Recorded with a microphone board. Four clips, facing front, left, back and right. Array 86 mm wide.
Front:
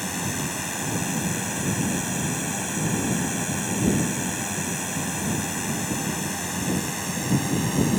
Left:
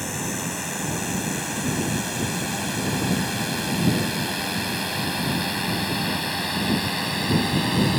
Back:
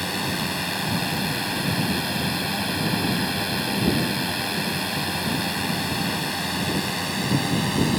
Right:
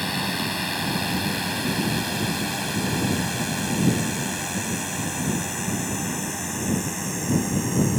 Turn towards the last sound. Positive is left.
turn(degrees=115)